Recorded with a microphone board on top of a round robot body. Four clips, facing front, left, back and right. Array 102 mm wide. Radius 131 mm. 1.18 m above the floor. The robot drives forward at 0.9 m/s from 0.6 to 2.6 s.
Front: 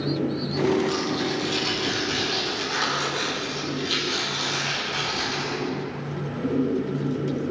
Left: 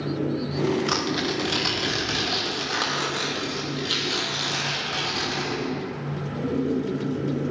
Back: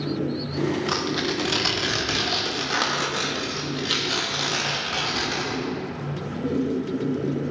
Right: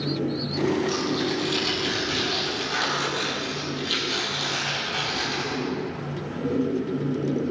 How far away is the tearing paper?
About 0.9 m.